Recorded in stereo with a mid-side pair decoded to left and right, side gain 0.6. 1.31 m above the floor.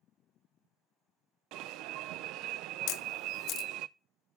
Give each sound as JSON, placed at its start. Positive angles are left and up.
{"t": 1.5, "sound": "an alarm", "azimuth_deg": -70, "distance_m": 0.5}
{"t": 2.9, "sound": "a camera shutter", "azimuth_deg": 65, "distance_m": 0.9}